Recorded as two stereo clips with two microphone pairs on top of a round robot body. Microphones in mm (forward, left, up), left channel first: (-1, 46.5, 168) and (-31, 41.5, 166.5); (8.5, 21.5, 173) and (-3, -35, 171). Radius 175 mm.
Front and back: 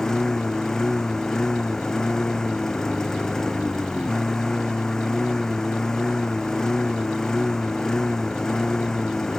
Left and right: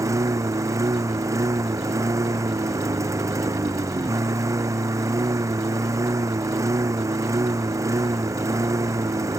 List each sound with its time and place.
0.0 s a lawn mower: 65° right